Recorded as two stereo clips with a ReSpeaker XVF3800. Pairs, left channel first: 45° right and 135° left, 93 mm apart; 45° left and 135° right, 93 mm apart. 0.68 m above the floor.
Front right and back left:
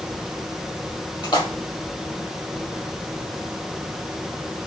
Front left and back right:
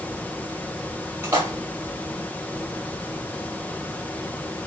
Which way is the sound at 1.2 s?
75° right.